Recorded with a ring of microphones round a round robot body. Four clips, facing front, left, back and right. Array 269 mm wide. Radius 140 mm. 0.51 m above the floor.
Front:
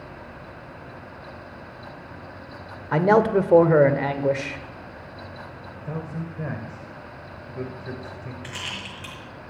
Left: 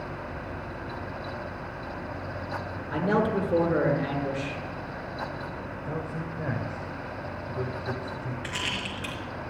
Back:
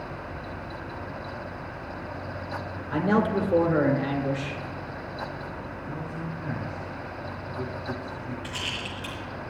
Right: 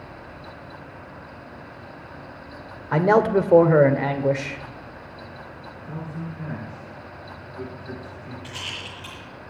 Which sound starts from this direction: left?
A rattle, at 8.4 s.